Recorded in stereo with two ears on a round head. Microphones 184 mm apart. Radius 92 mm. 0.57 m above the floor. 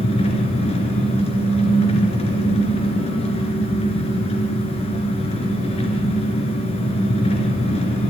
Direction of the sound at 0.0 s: 30° left (ahead or behind).